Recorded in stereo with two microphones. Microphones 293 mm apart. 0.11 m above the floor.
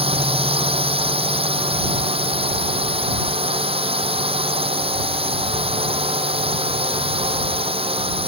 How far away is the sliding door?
I don't hear a sliding door.